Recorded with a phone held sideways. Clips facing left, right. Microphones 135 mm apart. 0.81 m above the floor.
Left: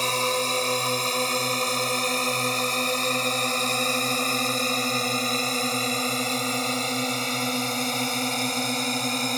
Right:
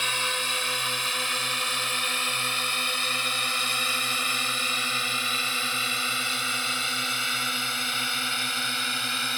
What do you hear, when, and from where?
0.0 s a drone: 35° left (ahead or behind)